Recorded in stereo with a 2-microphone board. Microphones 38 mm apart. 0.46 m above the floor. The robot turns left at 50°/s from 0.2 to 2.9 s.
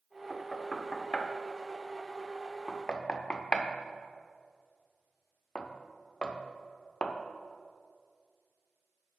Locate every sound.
0.3 s knocking: centre (ahead or behind), 0.5 m; by 7.1 s 25° left (ahead or behind), 0.5 m